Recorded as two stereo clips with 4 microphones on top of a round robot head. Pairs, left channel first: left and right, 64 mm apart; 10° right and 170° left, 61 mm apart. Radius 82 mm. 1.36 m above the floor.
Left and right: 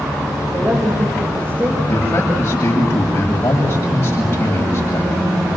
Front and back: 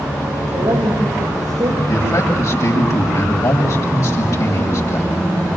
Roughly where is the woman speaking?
Behind right.